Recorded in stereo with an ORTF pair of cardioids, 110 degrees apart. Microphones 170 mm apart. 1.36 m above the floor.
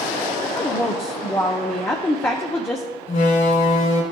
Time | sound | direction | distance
0.4 | a woman speaking | 15° left | 0.7 m
3.1 | a door slam | 50° left | 2.5 m